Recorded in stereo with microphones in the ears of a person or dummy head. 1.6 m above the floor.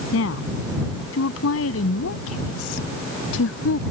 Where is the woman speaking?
80° left; by 3.8 s 85° left.